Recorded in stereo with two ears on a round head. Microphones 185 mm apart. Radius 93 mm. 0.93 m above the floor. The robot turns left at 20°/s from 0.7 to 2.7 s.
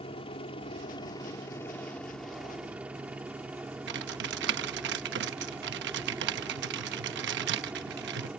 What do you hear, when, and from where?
0.0 s a helicopter: 30° left; by 8.4 s 10° right
3.9 s typing on a keyboard: 60° right (ahead or behind)